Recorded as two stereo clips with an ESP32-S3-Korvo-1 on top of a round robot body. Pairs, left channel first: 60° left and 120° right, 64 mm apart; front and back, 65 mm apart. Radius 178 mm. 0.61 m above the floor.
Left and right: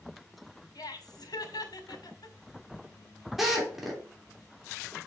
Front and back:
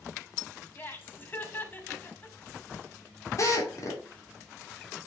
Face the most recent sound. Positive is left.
turn(degrees=-35)